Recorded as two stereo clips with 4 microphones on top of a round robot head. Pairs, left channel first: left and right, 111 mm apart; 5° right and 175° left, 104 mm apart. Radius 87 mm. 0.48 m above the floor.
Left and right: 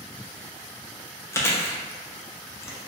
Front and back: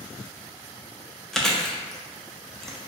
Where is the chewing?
75° left, 0.6 m.